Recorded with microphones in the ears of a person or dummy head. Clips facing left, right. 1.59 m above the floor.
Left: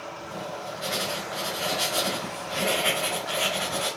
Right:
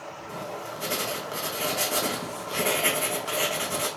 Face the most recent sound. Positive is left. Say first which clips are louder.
# even
turn(degrees=-40)  # may be behind; listen again after turning